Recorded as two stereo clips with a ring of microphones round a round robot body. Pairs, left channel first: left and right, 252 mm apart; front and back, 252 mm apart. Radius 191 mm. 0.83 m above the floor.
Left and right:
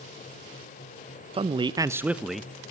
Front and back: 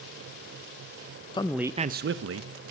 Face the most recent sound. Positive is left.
turn(degrees=180)